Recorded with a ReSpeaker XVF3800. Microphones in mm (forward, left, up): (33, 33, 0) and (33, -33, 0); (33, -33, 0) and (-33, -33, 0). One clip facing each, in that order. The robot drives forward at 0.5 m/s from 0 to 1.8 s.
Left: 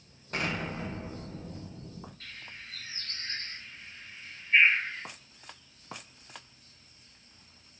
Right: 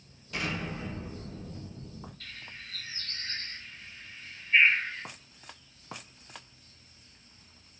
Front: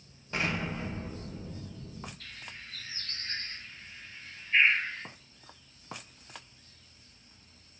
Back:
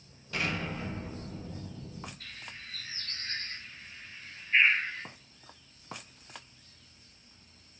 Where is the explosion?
55° left, 0.7 m; by 2.1 s 130° left, 0.7 m.